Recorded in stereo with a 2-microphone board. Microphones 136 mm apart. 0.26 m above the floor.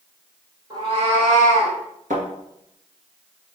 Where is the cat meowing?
35° right (ahead or behind), 1.3 m; by 1.8 s 85° right, 2.0 m.